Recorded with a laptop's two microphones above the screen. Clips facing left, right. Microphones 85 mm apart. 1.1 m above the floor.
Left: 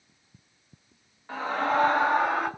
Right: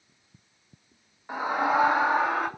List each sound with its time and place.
1.3 s a scream: 15° right (ahead or behind), 1.4 m; by 2.5 s centre (ahead or behind), 2 m